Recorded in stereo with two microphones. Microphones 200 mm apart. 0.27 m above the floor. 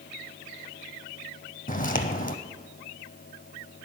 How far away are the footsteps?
About 0.7 m.